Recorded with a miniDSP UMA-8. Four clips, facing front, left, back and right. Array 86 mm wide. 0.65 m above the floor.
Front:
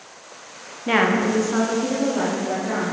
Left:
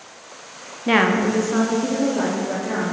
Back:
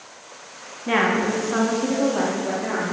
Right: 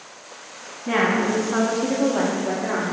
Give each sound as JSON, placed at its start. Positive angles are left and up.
{"t": 0.9, "sound": "a woman speaking", "azimuth_deg": 70, "distance_m": 0.6}